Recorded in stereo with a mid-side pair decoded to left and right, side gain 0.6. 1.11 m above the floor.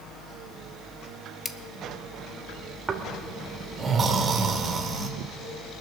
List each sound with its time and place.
1.4 s scissors: 20° left, 1.0 m
2.9 s snoring: 30° right, 2.0 m